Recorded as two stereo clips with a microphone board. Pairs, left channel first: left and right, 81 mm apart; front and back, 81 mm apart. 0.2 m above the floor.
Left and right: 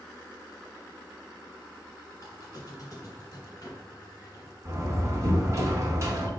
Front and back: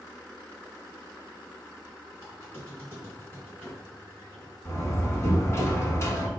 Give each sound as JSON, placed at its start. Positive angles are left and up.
{"t": 2.2, "sound": "a squeak", "azimuth_deg": 60, "distance_m": 1.5}
{"t": 4.7, "sound": "a door slam", "azimuth_deg": -45, "distance_m": 1.2}